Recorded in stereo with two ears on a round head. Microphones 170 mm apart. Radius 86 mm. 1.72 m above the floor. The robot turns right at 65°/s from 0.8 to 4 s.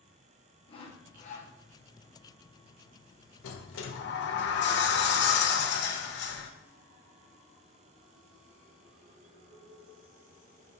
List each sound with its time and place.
0.7 s sawing: 50° left, 0.8 m; by 1.5 s 95° left, 0.8 m
3.4 s a sliding door: 80° left, 0.7 m; by 6.5 s 115° left, 0.7 m